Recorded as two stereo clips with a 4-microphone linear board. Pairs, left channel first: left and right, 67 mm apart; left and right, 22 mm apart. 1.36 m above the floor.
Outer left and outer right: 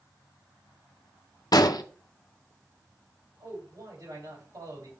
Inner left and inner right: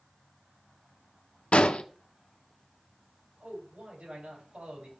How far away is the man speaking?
About 6.5 m.